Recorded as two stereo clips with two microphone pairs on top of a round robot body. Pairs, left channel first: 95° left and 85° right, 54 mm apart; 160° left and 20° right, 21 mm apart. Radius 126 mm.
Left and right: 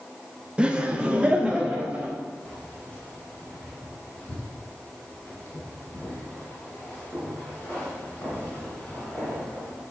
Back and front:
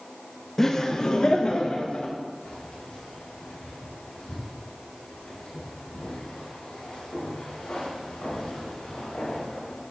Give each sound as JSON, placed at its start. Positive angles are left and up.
{"t": 0.6, "sound": "laughter", "azimuth_deg": -170, "distance_m": 1.2}
{"t": 2.5, "sound": "keys jangling", "azimuth_deg": 155, "distance_m": 4.5}